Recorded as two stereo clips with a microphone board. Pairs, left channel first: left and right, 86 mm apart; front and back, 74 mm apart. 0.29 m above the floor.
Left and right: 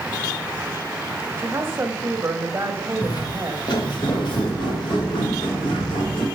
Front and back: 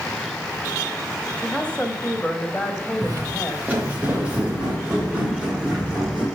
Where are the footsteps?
125° left, 1.1 m; by 6.2 s 105° left, 4 m.